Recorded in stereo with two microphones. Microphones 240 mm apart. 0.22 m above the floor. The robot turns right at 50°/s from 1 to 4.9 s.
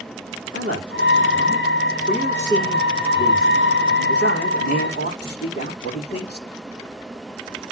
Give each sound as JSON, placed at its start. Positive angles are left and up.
{"t": 0.5, "sound": "a man speaking", "azimuth_deg": -60, "distance_m": 8.0}